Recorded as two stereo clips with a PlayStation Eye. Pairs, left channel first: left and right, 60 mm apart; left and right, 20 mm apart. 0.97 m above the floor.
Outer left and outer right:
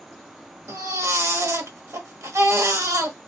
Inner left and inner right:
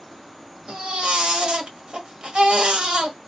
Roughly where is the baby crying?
Right.